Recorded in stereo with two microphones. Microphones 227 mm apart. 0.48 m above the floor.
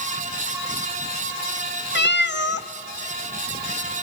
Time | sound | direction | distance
1.9 | a cat meowing | 50° left (ahead or behind) | 0.6 m